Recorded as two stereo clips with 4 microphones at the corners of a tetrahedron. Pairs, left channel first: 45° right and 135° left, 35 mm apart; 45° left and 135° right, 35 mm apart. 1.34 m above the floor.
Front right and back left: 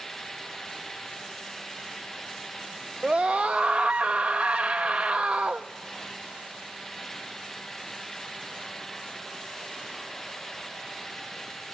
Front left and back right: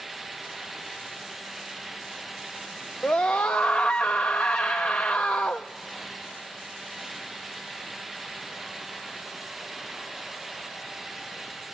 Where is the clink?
I don't hear a clink.